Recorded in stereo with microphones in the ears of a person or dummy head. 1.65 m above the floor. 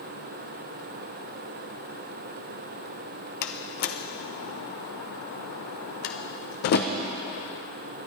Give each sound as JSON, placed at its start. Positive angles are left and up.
{"t": 3.4, "sound": "a door slam", "side_deg": 45, "distance_m": 0.7}